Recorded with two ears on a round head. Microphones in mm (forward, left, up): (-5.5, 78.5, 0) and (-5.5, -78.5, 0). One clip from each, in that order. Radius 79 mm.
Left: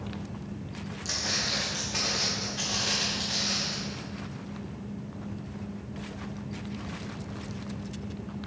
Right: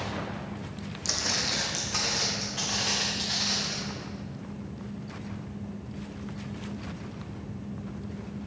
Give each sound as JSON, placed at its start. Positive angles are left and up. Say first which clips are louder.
{"t": 1.1, "sound": "footsteps", "louder": "right 1 dB", "side_deg": -30, "distance_m": 1.7}